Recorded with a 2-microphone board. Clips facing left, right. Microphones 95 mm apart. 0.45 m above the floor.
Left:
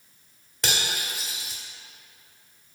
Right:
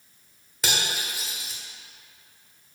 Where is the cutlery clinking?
Centre (ahead or behind), 0.8 m.